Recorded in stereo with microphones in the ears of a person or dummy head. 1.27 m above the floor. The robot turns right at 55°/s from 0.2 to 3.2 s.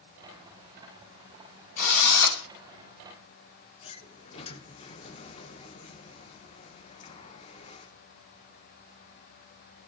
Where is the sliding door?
30° left (ahead or behind), 0.9 m.